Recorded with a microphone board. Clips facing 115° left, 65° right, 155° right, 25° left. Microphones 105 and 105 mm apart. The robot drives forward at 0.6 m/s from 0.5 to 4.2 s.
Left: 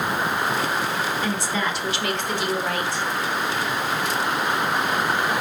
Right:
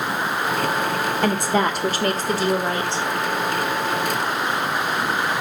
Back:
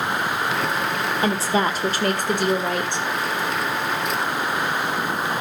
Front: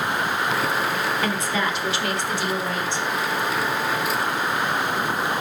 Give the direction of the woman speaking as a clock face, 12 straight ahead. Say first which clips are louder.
Right 5 dB, back 3 dB; 3 o'clock.